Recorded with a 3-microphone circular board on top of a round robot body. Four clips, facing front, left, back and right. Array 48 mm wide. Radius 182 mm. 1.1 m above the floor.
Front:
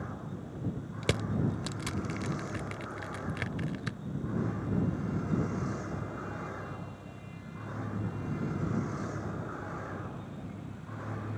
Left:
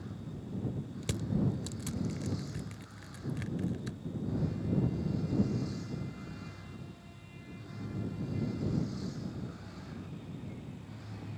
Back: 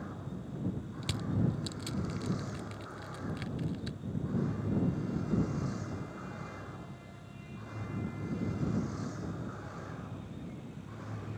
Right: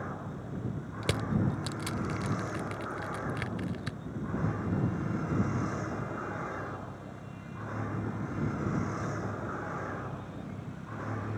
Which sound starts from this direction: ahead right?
Crushing, at 1.0 s.